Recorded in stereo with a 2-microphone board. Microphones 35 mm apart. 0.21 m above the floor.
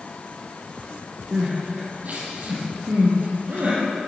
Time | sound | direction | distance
1.3 | crying | 50° right (ahead or behind) | 4.5 m